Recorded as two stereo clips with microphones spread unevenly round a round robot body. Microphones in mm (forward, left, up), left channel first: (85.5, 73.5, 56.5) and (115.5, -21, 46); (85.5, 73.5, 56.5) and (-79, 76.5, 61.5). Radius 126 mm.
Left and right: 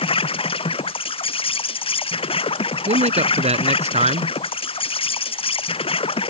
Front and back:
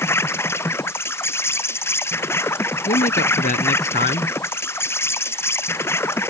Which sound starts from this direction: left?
An insect, at 0.0 s.